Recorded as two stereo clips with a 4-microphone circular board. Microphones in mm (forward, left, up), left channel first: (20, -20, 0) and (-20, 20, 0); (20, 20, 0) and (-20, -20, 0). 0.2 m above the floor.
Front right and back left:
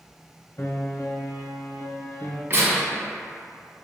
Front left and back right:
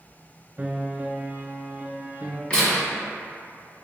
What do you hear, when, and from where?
0.6 s a piano: 75° right, 0.5 m
2.5 s tearing paper: 110° left, 1.3 m